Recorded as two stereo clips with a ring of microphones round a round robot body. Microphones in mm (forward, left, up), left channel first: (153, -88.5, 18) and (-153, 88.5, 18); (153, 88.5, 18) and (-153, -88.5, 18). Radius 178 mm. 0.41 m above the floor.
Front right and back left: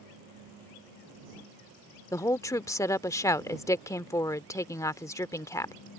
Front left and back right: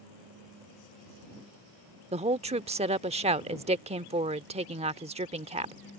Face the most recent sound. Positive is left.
turn(degrees=-100)